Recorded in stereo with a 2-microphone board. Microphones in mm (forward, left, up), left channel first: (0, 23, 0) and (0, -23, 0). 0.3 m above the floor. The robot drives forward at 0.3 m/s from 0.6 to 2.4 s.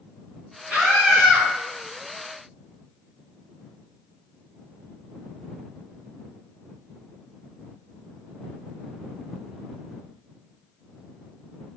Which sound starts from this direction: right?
A scream, at 0.7 s.